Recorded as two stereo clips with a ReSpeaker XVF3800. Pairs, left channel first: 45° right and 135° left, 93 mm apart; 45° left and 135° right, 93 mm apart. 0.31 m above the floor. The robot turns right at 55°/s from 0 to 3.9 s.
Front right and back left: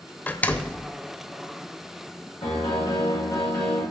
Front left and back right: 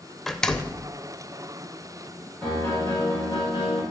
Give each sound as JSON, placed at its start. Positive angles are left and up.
{"t": 0.3, "sound": "a door slam", "azimuth_deg": -35, "distance_m": 0.5}
{"t": 2.4, "sound": "a piano", "azimuth_deg": -40, "distance_m": 5.5}